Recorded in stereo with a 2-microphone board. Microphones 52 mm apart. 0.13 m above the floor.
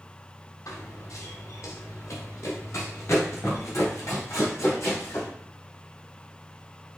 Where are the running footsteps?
70° left (ahead or behind), 1.7 m; by 5.3 s 60° left (ahead or behind), 4.5 m.